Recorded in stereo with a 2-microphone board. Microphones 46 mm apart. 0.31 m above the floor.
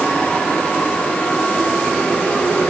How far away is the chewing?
I don't hear chewing.